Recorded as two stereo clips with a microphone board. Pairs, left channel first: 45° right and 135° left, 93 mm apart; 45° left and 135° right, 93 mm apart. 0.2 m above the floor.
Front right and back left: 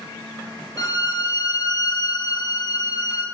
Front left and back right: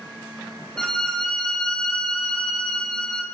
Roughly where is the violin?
Ahead right.